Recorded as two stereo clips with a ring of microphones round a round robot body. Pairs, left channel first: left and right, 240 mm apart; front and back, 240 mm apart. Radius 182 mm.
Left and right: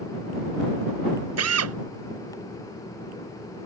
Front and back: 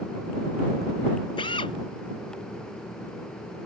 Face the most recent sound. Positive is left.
turn(degrees=-75)